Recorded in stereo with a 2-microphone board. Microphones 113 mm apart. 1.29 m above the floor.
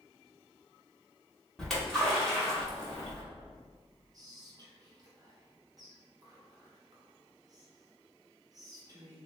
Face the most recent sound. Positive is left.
turn(degrees=-35)  # may be behind; listen again after turning